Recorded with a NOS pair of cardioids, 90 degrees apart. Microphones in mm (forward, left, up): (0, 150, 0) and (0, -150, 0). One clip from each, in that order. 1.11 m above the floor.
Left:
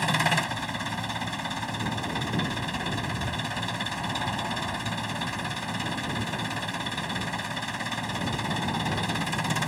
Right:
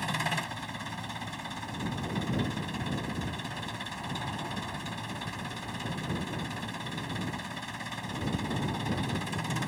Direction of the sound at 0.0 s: 45° left.